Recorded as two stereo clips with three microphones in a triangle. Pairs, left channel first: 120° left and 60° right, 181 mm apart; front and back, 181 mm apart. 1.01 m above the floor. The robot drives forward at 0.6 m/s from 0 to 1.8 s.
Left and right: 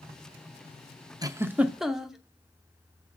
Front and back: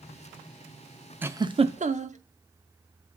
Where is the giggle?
110° right, 0.5 m; by 2.2 s 145° right, 0.7 m.